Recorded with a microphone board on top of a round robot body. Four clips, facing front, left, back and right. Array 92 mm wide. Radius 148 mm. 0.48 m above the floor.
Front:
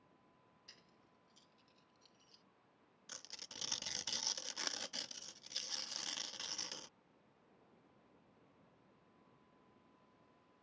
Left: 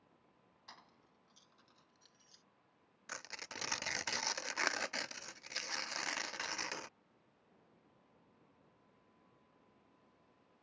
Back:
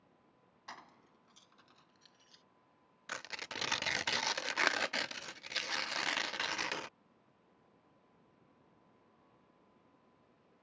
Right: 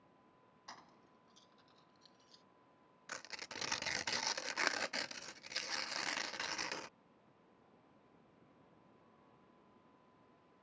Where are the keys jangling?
170° right; by 2.4 s 165° left.